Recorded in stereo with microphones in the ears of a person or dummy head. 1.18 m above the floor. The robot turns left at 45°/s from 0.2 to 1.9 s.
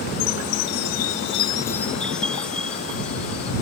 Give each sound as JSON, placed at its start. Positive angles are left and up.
{"t": 0.2, "sound": "a chime", "azimuth_deg": 85}